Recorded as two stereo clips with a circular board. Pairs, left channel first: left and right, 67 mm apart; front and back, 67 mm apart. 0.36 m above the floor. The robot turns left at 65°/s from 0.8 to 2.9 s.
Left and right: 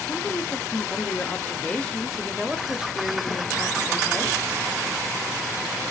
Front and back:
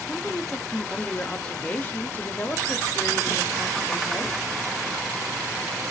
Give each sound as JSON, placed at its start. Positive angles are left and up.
{"t": 0.1, "sound": "a woman speaking", "azimuth_deg": 100, "distance_m": 0.9}